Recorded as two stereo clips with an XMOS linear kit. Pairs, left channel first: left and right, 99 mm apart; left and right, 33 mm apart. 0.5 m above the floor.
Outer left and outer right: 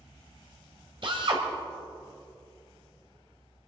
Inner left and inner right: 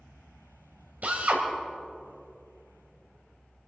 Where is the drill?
55° right (ahead or behind), 2 m.